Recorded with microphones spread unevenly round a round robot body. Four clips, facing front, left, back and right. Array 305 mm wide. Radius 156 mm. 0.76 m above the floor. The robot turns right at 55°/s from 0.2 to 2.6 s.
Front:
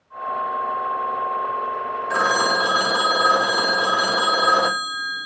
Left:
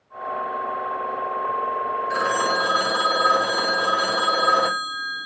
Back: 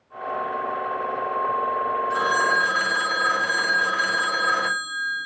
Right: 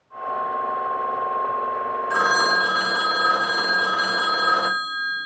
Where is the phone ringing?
5° right, 0.6 m; by 5.3 s 25° left, 0.6 m.